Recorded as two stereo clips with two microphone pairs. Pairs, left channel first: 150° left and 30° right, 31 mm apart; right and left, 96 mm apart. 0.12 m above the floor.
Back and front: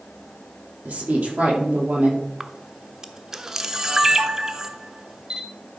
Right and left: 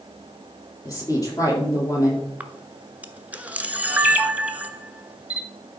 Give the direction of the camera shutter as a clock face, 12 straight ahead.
11 o'clock.